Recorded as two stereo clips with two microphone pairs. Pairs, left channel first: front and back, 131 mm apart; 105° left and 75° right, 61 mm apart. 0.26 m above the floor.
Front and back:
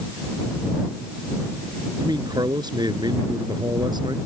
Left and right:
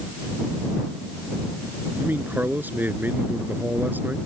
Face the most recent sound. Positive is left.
turn(degrees=-130)